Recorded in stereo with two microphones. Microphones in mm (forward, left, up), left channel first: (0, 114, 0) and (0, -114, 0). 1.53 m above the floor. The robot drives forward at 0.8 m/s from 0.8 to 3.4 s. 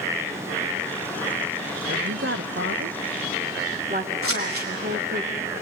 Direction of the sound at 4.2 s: 70° right (ahead or behind).